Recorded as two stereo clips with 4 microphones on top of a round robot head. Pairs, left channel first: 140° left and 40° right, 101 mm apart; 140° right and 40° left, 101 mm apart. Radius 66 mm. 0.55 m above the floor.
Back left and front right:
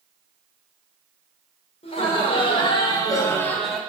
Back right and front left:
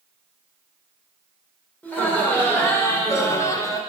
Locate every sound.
1.8 s laughter: 145° left, 2.5 m; by 3.8 s 125° right, 1.1 m